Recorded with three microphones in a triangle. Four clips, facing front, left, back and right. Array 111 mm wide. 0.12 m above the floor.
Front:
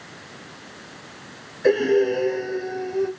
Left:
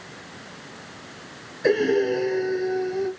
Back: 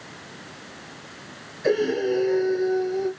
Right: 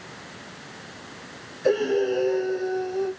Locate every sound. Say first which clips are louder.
1.6 s breathing: left 2 dB, front 4 dB; 50° left, 2.0 m